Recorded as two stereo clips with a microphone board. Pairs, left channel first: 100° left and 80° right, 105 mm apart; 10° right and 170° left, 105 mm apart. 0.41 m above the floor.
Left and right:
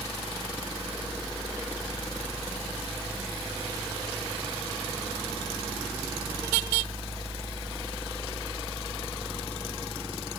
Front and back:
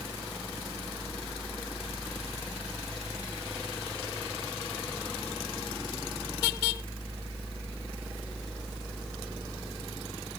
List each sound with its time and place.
Only background noise.